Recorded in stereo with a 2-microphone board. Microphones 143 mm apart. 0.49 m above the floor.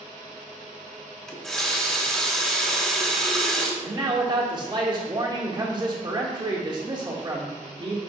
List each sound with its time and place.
1.3 s a running tap: 5° left (ahead or behind), 0.9 m
3.8 s a man speaking: 30° right (ahead or behind), 0.9 m